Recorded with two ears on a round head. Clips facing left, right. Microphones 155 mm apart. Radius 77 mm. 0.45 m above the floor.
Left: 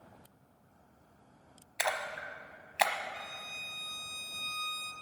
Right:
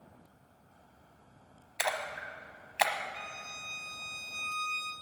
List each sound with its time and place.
1.8 s a splash: centre (ahead or behind), 0.9 m
3.1 s a violin: 15° left (ahead or behind), 1.2 m